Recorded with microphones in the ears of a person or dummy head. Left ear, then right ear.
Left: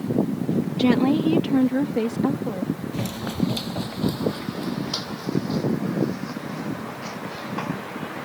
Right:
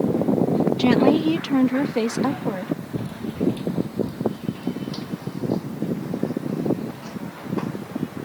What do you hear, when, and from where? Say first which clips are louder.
0.8 s a woman speaking: right 2 dB; 10° right (ahead or behind); by 2.7 s 40° right (ahead or behind)
2.9 s running footsteps: left 1 dB; 55° left (ahead or behind); by 8.2 s 15° left (ahead or behind)